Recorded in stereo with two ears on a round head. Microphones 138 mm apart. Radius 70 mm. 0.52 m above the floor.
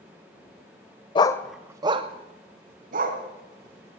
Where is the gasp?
No gasp in this recording.